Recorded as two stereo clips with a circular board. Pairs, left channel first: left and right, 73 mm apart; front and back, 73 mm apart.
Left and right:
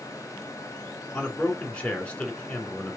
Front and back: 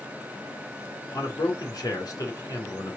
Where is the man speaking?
20° left, 2 m.